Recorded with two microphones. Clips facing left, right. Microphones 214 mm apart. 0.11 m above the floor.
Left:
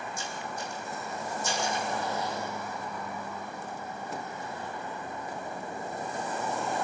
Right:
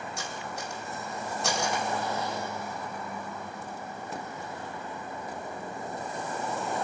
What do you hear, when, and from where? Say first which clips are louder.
0.2 s cutlery clinking: even; 75° right (ahead or behind), 3 m